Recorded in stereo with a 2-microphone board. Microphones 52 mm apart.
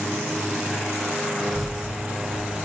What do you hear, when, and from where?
1.4 s a child speaking: 5° right (ahead or behind), 1.7 m